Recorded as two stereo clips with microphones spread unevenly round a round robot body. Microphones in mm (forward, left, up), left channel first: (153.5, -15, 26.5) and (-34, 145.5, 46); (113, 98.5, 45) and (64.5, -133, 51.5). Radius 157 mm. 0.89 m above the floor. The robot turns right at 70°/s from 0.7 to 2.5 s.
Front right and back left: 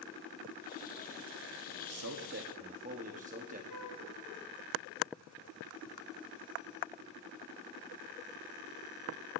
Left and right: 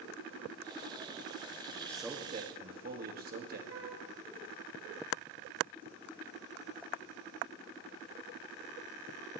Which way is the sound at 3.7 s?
75° right.